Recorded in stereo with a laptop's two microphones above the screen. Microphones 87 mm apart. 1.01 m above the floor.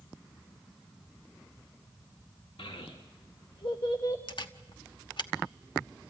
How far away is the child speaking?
About 1.2 m.